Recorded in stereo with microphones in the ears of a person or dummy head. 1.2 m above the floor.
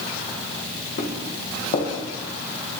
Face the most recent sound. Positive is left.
turn(degrees=40)  # may be behind; listen again after turning